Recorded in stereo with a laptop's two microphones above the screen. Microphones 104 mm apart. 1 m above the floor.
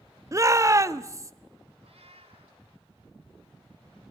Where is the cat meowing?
75° right (ahead or behind), 2.5 m.